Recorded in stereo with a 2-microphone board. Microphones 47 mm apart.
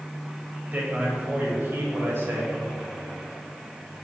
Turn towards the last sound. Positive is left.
turn(degrees=-60)  # may be behind; listen again after turning